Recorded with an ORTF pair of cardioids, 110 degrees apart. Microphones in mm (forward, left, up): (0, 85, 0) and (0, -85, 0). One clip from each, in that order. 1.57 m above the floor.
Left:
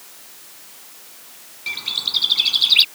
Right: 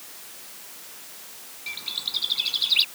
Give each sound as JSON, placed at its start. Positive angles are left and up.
{"t": 1.7, "sound": "a bird", "azimuth_deg": 40}